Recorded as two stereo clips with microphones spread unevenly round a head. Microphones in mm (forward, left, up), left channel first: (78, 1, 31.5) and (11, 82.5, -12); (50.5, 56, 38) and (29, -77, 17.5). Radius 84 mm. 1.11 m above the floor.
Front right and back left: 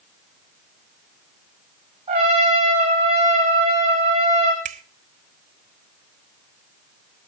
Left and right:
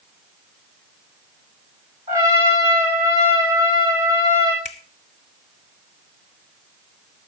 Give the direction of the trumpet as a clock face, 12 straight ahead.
6 o'clock.